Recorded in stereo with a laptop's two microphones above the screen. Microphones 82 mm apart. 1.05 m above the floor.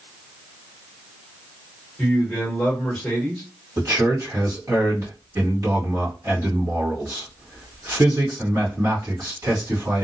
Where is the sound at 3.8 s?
45° right (ahead or behind), 1.2 m.